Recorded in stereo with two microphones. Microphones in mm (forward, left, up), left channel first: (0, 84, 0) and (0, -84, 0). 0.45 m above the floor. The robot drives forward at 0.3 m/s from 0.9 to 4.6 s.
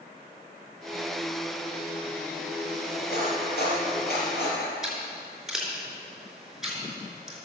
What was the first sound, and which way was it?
Cutlery clinking, 70° left (ahead or behind).